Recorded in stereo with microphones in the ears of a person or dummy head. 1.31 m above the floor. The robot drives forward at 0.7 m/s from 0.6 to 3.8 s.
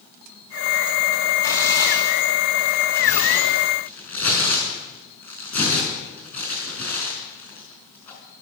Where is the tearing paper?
25° left (ahead or behind), 3.5 m; by 8.2 s 15° left (ahead or behind), 5 m.